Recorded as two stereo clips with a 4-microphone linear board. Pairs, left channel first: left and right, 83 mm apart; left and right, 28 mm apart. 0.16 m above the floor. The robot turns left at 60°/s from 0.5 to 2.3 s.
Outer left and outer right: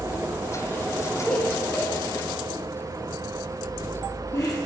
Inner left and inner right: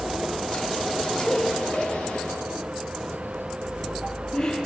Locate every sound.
1.3 s laughter: 10° left (ahead or behind), 2 m; by 4.6 s 40° left (ahead or behind), 2 m